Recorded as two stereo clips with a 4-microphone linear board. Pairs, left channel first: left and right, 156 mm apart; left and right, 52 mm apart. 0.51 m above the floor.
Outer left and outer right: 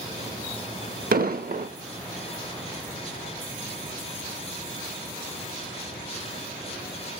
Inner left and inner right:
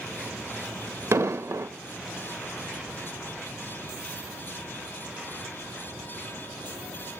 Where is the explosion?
70° right (ahead or behind), 0.5 m.